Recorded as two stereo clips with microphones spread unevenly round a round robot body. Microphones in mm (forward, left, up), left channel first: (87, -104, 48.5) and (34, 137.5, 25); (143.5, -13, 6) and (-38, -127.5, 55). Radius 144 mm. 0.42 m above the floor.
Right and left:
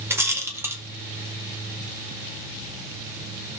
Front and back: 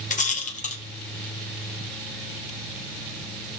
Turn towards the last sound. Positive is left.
turn(degrees=30)